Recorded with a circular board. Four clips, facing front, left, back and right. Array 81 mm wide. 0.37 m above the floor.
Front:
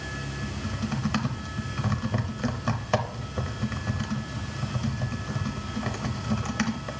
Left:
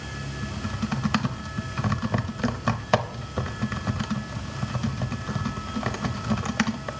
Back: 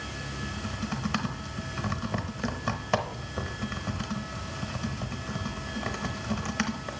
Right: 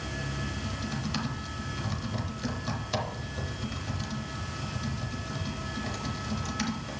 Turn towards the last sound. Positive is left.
turn(degrees=90)